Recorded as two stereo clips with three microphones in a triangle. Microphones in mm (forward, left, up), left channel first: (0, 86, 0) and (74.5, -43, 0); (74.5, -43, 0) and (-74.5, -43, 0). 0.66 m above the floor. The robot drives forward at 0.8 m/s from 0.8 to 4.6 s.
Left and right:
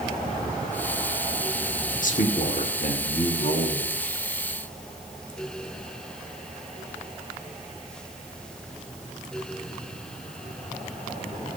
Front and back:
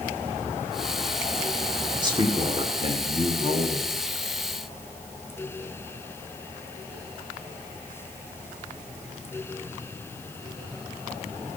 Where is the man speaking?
125° left, 1.6 m; by 3.9 s 150° left, 2.5 m.